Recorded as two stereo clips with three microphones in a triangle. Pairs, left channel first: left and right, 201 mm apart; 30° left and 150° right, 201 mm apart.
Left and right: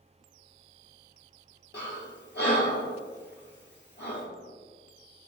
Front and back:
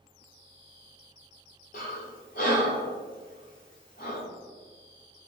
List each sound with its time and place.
1.7 s breathing: 70° left, 0.8 m